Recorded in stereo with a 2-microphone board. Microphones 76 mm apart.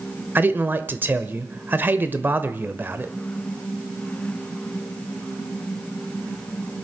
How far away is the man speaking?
About 0.9 m.